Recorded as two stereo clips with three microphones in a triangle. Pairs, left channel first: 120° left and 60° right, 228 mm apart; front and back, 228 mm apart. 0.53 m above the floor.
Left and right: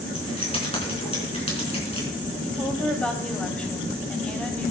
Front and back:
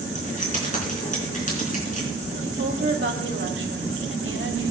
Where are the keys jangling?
55° left, 4 m.